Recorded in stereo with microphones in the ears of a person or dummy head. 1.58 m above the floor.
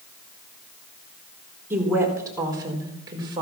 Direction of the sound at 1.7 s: 15° right (ahead or behind).